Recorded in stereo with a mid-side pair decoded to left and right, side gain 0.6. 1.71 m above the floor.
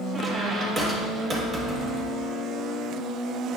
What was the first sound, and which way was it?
A squeak, 30° right.